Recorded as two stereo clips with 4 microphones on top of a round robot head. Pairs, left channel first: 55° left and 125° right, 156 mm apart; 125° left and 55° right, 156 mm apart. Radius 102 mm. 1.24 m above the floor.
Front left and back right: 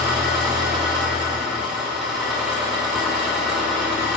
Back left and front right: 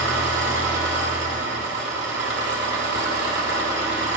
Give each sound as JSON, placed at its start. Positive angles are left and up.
{"t": 0.0, "sound": "an engine running", "azimuth_deg": -45, "distance_m": 1.3}